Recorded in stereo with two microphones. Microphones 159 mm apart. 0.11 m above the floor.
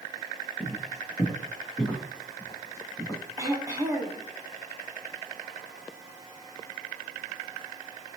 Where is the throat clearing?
20° right (ahead or behind), 2 m.